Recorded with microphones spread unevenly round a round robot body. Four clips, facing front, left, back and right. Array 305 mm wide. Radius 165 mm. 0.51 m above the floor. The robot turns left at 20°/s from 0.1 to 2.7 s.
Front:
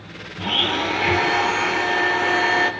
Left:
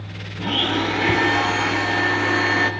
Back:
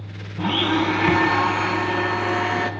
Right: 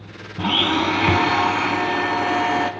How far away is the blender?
About 3.5 m.